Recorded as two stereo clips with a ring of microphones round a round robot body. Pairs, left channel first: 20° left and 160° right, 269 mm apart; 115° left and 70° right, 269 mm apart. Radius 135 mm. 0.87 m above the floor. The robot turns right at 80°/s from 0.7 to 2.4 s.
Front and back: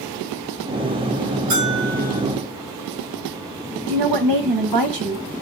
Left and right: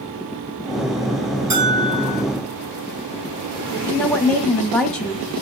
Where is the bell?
150° right, 6.5 m; by 2.2 s 90° right, 6.5 m.